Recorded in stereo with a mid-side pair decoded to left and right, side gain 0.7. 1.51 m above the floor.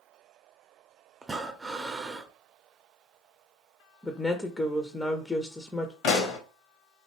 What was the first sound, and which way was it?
Breathing, 15° right.